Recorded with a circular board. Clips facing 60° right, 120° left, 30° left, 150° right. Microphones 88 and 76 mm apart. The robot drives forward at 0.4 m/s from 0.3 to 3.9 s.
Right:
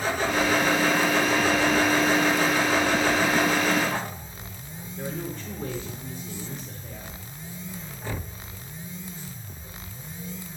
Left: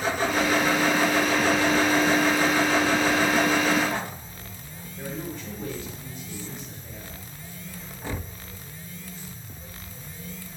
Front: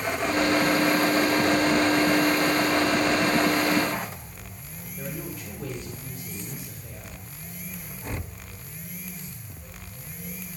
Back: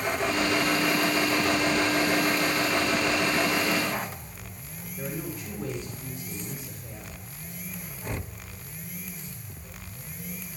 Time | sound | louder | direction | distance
5.0 | a woman speaking | right 1 dB, back 1 dB | 110° right | 4 m